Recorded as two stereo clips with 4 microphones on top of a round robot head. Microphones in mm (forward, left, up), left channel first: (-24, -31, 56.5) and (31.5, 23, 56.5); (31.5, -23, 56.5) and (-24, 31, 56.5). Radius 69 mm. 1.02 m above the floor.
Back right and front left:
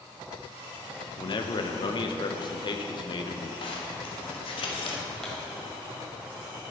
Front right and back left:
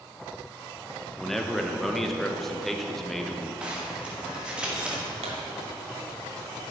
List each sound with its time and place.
1.2 s a man speaking: 130° right, 0.8 m
3.6 s a zipper: 145° right, 1.3 m
5.2 s a pop: 140° left, 1.2 m